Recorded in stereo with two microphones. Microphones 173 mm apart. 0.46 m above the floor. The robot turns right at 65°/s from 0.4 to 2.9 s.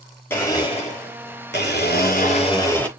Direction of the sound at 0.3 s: 15° left.